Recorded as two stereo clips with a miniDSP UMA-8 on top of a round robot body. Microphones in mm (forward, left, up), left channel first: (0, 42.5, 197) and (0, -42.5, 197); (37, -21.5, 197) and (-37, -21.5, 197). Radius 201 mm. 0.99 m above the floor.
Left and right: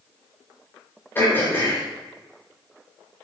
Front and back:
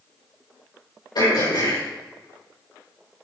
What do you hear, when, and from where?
1.1 s throat clearing: 25° left, 5.5 m